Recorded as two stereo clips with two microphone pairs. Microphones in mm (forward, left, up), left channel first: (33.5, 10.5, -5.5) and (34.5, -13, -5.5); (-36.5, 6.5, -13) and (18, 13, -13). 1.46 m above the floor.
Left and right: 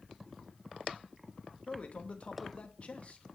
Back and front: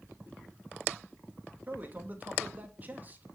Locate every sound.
1.7 s a man speaking: 65° left, 2.5 m